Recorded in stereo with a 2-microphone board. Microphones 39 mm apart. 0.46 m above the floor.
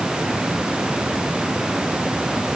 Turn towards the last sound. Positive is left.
No sound to turn to.